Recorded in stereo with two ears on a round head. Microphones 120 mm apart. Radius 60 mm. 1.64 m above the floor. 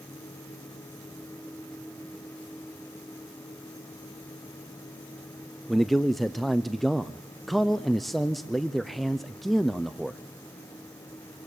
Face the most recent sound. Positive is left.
turn(degrees=0)  # may be behind; listen again after turning